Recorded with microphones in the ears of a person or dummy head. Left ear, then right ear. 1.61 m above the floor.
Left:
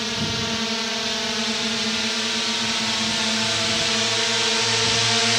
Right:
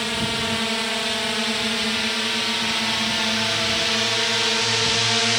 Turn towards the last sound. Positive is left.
turn(degrees=0)  # may be behind; listen again after turning